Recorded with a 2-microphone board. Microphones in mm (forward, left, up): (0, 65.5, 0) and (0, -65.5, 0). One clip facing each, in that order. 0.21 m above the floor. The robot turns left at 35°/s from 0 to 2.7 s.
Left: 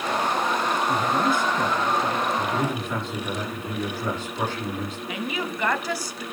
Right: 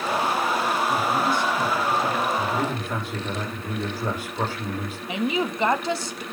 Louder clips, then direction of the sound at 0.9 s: Even; 75° left.